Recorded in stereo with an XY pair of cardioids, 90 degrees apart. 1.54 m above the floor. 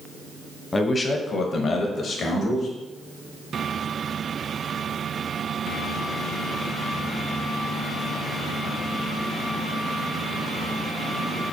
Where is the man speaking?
30° left, 0.7 m; by 2.7 s 70° left, 1.4 m.